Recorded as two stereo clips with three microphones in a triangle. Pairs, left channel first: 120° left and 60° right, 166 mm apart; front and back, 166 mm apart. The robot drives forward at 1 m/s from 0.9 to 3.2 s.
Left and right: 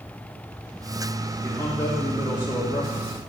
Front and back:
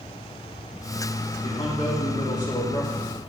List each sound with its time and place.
1.4 s a man speaking: 45° left, 3 m; by 3.1 s 85° left, 2 m